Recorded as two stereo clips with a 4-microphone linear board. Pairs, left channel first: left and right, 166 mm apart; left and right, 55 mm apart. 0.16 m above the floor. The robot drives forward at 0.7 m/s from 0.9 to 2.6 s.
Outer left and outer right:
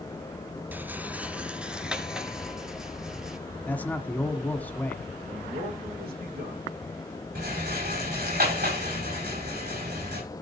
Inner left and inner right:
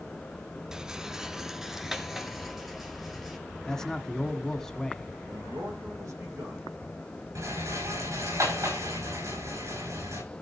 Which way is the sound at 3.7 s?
10° left (ahead or behind).